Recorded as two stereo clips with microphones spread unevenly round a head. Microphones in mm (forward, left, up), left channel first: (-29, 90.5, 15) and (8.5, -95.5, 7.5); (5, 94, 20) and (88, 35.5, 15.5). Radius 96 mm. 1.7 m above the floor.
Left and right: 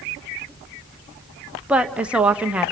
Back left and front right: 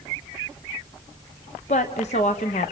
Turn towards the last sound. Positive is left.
turn(degrees=-165)